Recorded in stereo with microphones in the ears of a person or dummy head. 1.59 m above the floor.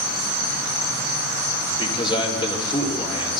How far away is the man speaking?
About 4.5 m.